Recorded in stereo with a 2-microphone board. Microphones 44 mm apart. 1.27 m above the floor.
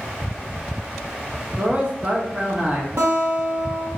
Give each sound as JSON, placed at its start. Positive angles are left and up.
{"t": 1.6, "sound": "a man speaking", "side_deg": -30, "distance_m": 2.0}
{"t": 3.0, "sound": "a guitar", "side_deg": -85, "distance_m": 2.0}